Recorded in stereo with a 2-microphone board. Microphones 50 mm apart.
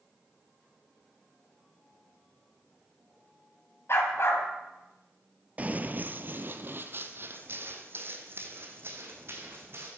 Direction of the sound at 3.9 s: 55° left (ahead or behind).